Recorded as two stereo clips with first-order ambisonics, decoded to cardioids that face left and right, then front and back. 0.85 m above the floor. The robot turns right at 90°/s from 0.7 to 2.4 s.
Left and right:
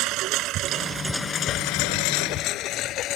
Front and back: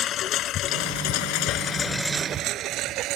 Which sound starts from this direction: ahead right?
A lawn mower, at 0.0 s.